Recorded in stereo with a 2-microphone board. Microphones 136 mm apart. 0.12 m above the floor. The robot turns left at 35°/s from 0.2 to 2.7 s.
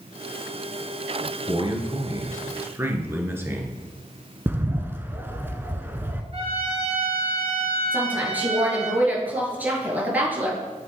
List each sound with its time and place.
1.5 s a man speaking: 110° right, 1.4 m; by 3.8 s 150° right, 1.4 m
4.5 s a bird: 15° right (ahead or behind), 0.6 m
6.3 s a trumpet: 45° right (ahead or behind), 2 m
7.9 s a woman speaking: 10° right (ahead or behind), 2 m